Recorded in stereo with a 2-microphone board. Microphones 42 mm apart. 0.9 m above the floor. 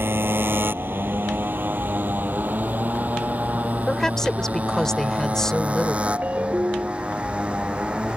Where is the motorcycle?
65° right (ahead or behind); by 8.2 s 25° right (ahead or behind).